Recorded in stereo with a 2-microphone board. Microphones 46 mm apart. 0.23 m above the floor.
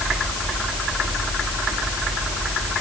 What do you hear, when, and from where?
Only background noise.